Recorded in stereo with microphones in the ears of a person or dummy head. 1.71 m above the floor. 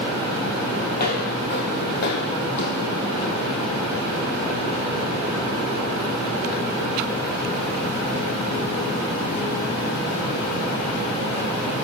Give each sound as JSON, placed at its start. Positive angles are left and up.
{"t": 0.9, "sound": "footsteps", "side_deg": 50, "distance_m": 2.5}